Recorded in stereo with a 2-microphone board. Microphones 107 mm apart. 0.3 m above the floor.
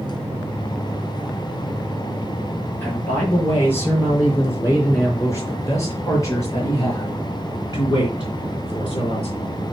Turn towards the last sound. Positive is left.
turn(degrees=50)  # may be behind; listen again after turning